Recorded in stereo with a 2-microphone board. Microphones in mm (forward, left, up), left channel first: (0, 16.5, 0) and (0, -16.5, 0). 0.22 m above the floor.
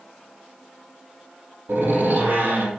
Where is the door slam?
75° right (ahead or behind), 6 m.